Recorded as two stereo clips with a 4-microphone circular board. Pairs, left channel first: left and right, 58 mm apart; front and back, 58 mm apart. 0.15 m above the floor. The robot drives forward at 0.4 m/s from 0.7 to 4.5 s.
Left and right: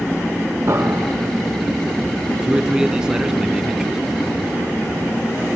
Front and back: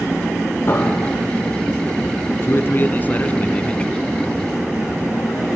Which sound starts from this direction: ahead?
A man speaking, at 2.4 s.